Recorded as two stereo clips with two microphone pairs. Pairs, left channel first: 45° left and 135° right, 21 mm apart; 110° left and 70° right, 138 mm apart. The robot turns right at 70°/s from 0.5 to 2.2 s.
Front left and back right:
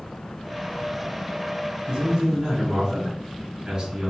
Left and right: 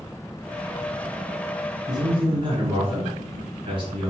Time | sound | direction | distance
1.9 | a man speaking | 115° right | 1.4 m